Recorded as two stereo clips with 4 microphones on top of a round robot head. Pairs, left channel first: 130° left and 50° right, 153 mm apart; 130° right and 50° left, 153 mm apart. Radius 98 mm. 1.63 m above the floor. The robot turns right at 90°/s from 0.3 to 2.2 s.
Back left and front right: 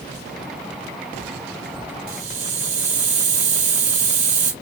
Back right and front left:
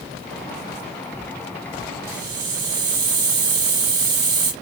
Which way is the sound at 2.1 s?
20° right.